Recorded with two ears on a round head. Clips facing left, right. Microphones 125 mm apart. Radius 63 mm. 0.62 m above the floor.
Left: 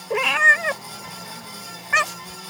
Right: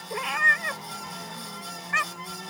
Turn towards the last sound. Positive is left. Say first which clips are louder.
# left 7 dB
turn(degrees=70)  # may be behind; listen again after turning